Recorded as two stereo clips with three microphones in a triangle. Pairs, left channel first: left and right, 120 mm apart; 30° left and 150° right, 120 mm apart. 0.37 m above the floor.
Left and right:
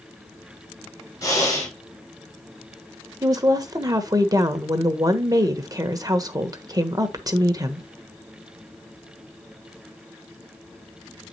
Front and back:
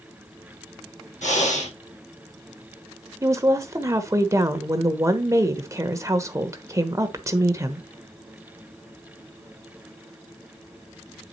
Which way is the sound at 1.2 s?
25° left.